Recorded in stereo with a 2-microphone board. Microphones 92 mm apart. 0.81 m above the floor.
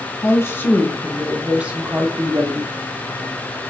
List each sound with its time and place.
0.2 s a woman speaking: 30° left (ahead or behind), 1.0 m; by 2.7 s 45° right (ahead or behind), 1.1 m